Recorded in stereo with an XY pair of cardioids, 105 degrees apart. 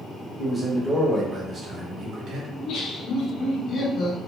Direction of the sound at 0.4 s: Straight ahead.